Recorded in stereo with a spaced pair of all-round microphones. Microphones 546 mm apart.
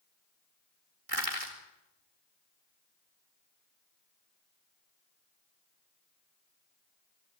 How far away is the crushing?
About 4 m.